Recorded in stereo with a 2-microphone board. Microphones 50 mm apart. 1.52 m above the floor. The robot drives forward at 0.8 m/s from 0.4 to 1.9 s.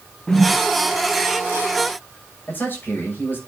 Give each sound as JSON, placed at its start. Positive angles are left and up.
{"t": 0.3, "sound": "a whoosh", "side_deg": 20, "distance_m": 0.9}
{"t": 2.5, "sound": "a man speaking", "side_deg": 40, "distance_m": 6.5}